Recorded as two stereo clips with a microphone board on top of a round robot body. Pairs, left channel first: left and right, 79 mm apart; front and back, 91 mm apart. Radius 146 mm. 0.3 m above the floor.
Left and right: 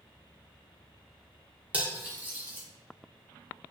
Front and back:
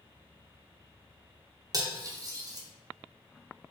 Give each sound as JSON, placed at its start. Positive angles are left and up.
{"t": 1.7, "sound": "cutlery clinking", "azimuth_deg": -155, "distance_m": 0.9}